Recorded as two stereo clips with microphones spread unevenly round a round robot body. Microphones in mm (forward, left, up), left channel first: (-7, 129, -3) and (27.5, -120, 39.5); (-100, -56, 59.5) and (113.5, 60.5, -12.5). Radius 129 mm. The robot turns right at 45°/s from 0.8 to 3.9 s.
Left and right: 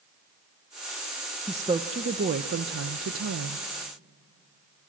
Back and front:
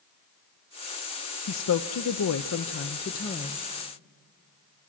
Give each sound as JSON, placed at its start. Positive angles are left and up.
{"t": 1.5, "sound": "a woman speaking", "azimuth_deg": -170, "distance_m": 0.6}